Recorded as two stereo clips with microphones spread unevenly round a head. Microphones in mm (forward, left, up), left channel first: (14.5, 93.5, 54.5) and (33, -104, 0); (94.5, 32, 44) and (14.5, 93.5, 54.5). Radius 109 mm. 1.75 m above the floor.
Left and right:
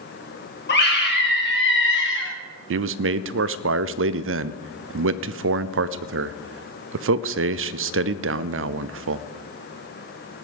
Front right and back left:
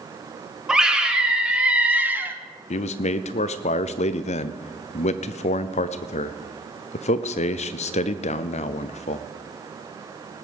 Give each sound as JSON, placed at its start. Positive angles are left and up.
{"t": 0.7, "sound": "a scream", "azimuth_deg": 60, "distance_m": 3.0}
{"t": 2.7, "sound": "a man speaking", "azimuth_deg": -60, "distance_m": 0.6}